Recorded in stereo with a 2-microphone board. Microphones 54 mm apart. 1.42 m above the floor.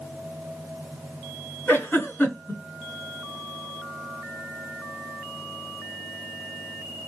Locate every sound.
1.7 s a giggle: 50° left (ahead or behind), 1.9 m